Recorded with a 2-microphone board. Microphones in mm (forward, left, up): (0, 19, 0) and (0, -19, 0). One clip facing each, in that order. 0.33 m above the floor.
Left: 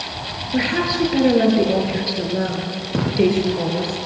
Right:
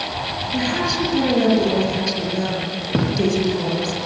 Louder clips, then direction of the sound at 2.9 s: Right 2 dB; 15° right (ahead or behind).